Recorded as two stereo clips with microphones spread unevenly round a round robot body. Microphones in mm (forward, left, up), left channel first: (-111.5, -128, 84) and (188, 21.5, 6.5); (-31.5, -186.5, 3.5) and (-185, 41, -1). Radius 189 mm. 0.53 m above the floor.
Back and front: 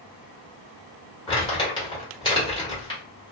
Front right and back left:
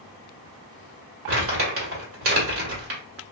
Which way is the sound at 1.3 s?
120° left.